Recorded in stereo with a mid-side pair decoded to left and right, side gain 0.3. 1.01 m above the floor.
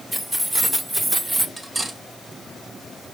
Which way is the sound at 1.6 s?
35° right.